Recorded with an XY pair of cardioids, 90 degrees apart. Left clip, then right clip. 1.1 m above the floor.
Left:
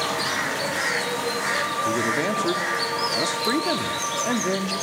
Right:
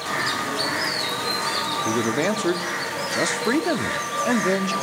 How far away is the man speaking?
About 1.9 m.